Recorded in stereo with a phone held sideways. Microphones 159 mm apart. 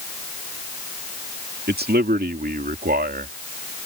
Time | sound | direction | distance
1.7 | a man speaking | 75° right (ahead or behind) | ?